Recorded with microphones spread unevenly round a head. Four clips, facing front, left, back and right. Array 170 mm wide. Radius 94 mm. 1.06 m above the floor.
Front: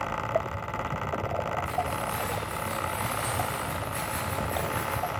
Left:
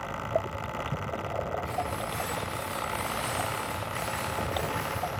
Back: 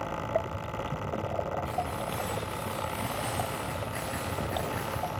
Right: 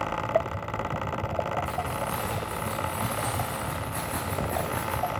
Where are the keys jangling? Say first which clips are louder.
Right 2 dB, front 3 dB; 130° right, 5.5 m; by 5.1 s 105° right, 4.5 m.